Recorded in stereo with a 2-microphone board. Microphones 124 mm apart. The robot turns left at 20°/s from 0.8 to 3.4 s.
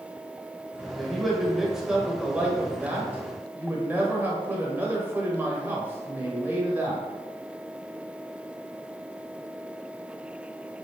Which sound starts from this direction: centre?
A man speaking, at 1.0 s.